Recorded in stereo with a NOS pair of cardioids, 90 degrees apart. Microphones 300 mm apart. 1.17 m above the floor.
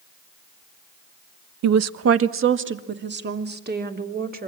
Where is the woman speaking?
65° right, 0.9 m; by 4.5 s 30° right, 3.5 m.